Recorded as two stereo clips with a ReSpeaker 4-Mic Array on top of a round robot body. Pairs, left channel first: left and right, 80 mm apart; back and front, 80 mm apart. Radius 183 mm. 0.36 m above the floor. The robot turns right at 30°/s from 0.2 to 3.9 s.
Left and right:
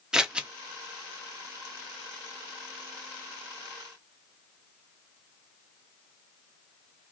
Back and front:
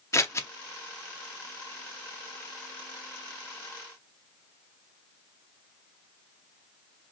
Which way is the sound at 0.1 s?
165° right.